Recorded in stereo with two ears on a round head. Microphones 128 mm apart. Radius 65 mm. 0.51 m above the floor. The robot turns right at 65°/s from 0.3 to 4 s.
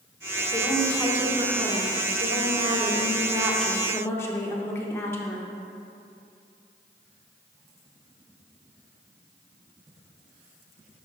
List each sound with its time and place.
0.5 s a woman speaking: 160° left, 0.8 m; by 5.5 s 25° left, 0.8 m